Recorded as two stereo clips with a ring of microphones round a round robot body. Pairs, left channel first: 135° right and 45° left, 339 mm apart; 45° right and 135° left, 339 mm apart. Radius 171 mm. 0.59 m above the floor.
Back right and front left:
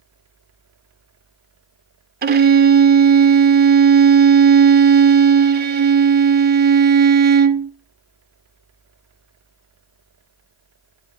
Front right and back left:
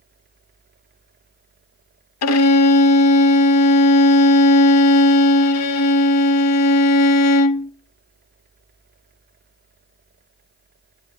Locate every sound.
2.2 s a violin: 10° right, 0.6 m